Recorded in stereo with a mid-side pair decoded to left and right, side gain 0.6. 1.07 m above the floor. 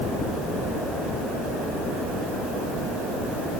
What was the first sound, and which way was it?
Only background noise.